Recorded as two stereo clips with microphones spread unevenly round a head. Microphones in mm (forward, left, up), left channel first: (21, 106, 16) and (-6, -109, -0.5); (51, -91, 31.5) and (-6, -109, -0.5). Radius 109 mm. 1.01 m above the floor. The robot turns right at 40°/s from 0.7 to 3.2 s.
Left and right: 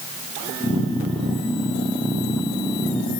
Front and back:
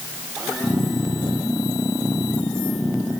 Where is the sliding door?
No sliding door in this recording.